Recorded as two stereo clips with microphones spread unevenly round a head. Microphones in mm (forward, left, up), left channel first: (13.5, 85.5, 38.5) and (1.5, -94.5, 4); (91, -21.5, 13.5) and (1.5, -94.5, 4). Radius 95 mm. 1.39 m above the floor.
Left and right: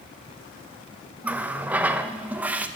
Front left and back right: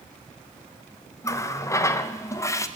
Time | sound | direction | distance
1.2 | a running tap | straight ahead | 0.5 m